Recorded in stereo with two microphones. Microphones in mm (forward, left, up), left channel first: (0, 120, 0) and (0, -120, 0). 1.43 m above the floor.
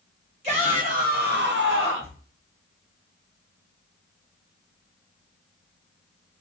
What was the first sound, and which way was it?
A shout, 25° right (ahead or behind).